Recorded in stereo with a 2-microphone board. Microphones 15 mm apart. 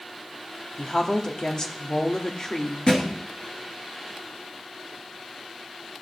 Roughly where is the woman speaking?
Left.